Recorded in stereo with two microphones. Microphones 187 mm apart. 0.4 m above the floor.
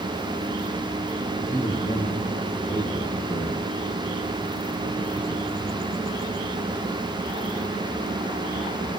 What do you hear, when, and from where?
1.4 s a man speaking: 45° left (ahead or behind), 9 m